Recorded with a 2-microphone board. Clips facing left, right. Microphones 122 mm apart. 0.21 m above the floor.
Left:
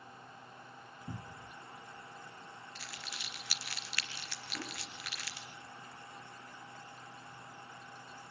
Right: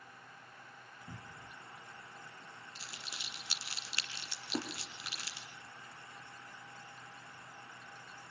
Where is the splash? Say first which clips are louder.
Right 7 dB; 85° right, 7 m.